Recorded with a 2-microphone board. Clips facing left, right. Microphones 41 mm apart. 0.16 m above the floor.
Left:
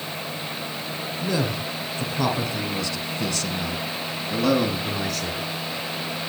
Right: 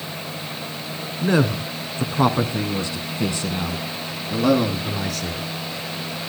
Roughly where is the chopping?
I don't hear chopping.